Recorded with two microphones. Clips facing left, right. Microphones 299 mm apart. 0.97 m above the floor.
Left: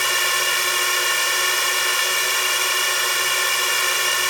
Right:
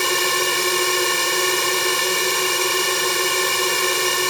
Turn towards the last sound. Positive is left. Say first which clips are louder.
# right 8 dB
turn(degrees=-45)  # may be behind; listen again after turning